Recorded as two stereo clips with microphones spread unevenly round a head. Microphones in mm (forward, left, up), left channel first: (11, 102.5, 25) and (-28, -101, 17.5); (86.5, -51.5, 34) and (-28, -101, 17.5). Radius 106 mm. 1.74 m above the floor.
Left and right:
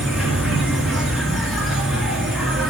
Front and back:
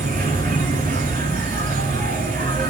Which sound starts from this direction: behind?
An insect, at 0.0 s.